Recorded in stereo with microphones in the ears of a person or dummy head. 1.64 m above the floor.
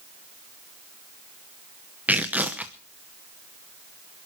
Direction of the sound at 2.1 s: 10° right (ahead or behind).